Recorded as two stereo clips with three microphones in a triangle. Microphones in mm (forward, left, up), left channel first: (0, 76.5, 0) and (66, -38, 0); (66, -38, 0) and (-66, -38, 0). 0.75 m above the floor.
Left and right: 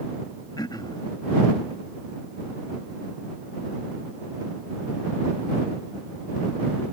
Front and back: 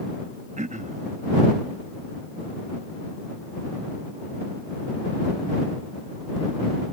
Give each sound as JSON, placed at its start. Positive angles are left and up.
{"t": 0.6, "sound": "throat clearing", "azimuth_deg": 175}